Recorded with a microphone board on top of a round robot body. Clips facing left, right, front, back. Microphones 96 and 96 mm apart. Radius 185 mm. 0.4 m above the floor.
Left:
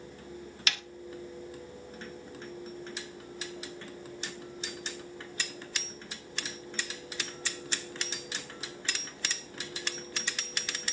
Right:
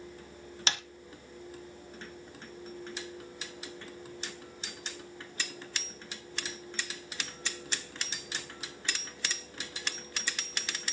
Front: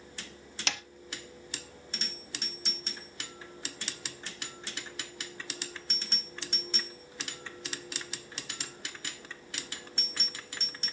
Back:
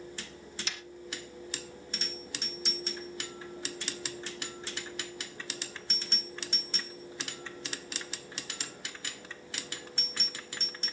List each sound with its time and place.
0.7 s a snare drum: 25° right, 0.7 m